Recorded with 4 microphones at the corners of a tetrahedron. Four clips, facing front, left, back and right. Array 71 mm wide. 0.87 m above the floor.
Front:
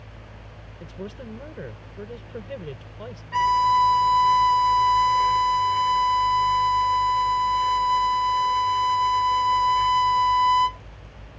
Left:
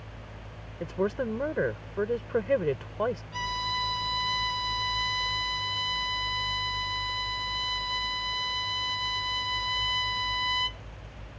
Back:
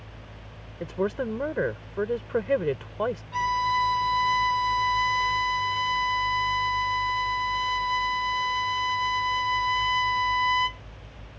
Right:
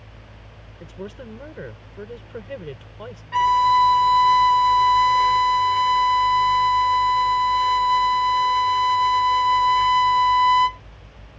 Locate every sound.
0.8 s a woman speaking: 150° left
3.3 s a violin: 65° right